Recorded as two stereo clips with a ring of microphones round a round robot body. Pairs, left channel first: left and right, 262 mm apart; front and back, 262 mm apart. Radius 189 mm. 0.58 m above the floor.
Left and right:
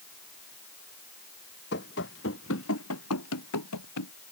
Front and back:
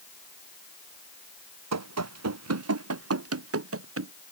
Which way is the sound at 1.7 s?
155° left.